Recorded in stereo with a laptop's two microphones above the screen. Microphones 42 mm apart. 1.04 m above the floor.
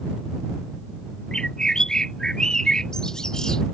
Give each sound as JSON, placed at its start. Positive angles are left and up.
{"t": 1.3, "sound": "a bird", "side_deg": 15}